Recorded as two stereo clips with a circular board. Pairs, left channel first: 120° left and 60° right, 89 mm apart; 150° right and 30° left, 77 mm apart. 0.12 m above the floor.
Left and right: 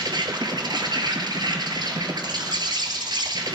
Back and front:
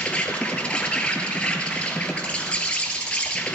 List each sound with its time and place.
0.0 s an insect: 75° right, 1.4 m